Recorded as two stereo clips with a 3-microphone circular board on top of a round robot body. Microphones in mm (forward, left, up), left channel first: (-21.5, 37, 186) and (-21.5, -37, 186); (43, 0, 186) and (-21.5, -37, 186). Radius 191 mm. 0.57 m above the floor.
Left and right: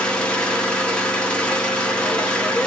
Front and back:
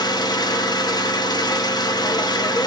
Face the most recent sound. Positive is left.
turn(degrees=15)